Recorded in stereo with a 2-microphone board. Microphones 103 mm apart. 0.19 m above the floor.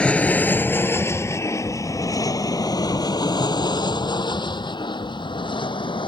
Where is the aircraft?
10° left (ahead or behind); by 6.1 s 50° left (ahead or behind).